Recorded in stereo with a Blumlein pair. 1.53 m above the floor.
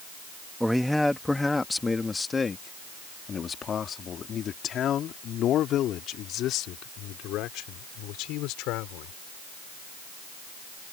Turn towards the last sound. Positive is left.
turn(degrees=40)